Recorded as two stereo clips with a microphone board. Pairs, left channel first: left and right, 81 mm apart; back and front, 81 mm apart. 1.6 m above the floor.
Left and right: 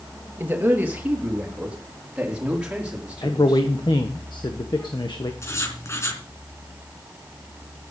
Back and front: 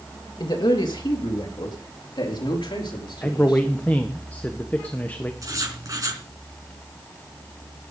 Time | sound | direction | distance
0.4 | a man speaking | 155° right | 2.5 m
3.2 | a man speaking | 110° left | 1.3 m
5.4 | writing | 40° left | 3.5 m